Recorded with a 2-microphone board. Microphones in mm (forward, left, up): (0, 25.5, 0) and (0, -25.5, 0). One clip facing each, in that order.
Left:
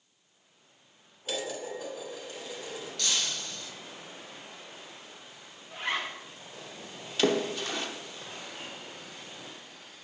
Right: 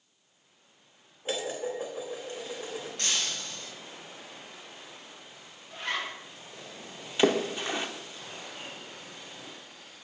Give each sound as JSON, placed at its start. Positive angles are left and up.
{"t": 1.2, "sound": "dishes clattering", "side_deg": -30, "distance_m": 2.5}
{"t": 3.0, "sound": "breaking glass", "side_deg": -30, "distance_m": 3.0}
{"t": 5.7, "sound": "a zipper", "side_deg": 20, "distance_m": 2.0}
{"t": 7.2, "sound": "a splash", "side_deg": -20, "distance_m": 0.9}